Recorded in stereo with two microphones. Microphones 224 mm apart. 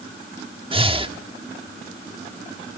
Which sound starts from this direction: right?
Breathing, at 0.7 s.